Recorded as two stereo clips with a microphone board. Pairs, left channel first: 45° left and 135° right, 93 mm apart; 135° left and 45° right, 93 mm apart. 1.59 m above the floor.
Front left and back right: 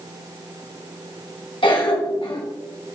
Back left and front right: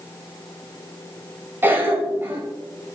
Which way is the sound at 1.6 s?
20° left.